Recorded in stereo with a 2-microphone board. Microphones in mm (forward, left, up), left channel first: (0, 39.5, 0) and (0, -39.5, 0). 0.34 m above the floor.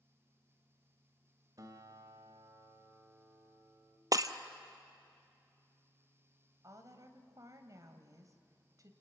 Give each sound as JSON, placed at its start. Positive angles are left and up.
{"t": 1.6, "sound": "a guitar", "side_deg": -50, "distance_m": 1.6}
{"t": 4.1, "sound": "breaking glass", "side_deg": -50, "distance_m": 0.7}
{"t": 6.6, "sound": "a woman speaking", "side_deg": -45, "distance_m": 1.8}